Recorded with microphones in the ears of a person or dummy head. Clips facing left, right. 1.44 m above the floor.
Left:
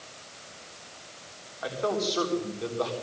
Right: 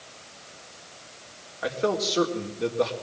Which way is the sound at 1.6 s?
30° right (ahead or behind).